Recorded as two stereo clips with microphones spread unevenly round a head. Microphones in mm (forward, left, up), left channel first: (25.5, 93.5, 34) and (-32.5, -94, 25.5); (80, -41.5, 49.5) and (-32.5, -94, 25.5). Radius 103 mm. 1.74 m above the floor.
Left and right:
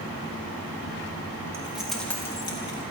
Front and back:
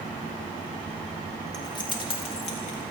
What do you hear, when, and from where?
1.5 s keys jangling: 30° right, 2.5 m; by 2.8 s 15° left, 2.5 m